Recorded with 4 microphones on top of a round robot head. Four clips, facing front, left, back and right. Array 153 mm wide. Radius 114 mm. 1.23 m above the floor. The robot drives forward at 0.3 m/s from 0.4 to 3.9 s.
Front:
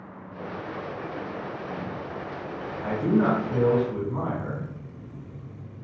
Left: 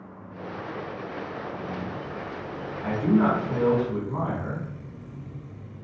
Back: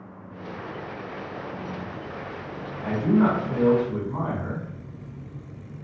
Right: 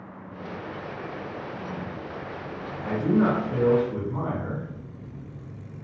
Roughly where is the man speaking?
Behind left.